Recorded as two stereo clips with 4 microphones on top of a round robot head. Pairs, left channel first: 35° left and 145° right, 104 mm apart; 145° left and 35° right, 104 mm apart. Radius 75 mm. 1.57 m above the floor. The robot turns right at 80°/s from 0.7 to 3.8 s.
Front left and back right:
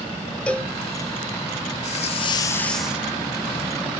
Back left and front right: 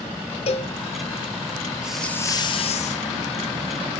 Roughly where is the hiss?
Ahead left.